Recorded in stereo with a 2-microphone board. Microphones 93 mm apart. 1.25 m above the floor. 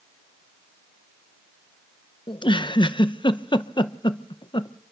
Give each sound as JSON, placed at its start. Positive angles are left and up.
{"t": 2.3, "sound": "a giggle", "side_deg": 60, "distance_m": 0.7}